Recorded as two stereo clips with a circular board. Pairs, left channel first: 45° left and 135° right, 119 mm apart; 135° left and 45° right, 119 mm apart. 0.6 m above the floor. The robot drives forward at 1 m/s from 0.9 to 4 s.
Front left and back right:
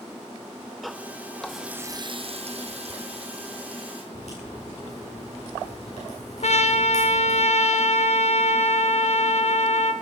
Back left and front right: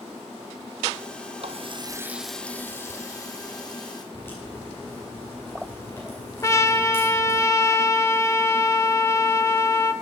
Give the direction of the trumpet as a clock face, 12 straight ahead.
10 o'clock.